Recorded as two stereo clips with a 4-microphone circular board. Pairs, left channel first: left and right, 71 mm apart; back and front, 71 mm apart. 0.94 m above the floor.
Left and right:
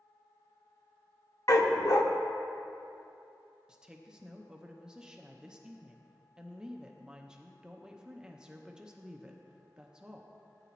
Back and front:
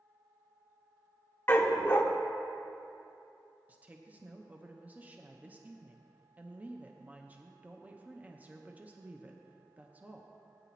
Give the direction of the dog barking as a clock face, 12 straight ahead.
8 o'clock.